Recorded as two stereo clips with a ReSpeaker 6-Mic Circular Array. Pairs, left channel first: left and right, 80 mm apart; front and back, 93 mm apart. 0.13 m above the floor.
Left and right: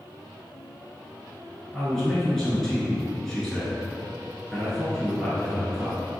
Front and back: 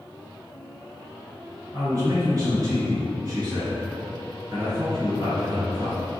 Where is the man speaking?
175° left, 1.8 m.